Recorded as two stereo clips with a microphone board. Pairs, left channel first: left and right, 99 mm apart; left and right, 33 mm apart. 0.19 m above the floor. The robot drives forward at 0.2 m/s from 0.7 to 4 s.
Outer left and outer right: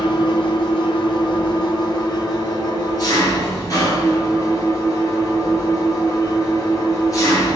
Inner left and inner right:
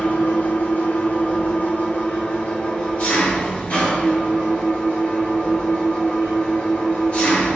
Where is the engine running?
60° left (ahead or behind), 0.9 m; by 7.6 s 35° left (ahead or behind), 1.2 m.